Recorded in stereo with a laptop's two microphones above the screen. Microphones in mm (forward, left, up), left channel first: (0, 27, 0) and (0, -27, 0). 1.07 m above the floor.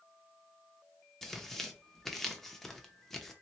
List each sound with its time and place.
1.2 s tearing paper: 5° left (ahead or behind), 0.7 m